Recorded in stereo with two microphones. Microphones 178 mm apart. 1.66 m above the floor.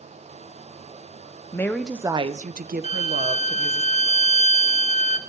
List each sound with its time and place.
1.5 s a woman speaking: 15° left (ahead or behind), 0.7 m; by 3.8 s 65° right (ahead or behind), 1.4 m
2.8 s a violin: 40° left (ahead or behind), 0.7 m